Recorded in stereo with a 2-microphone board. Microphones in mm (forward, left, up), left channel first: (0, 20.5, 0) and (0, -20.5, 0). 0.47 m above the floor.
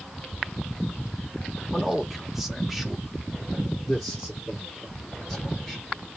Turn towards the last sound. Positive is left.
turn(degrees=0)  # may be behind; listen again after turning